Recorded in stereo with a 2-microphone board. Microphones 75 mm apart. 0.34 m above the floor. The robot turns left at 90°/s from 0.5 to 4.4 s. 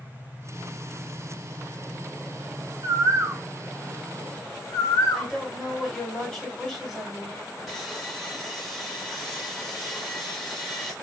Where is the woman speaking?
5° left (ahead or behind), 3 m.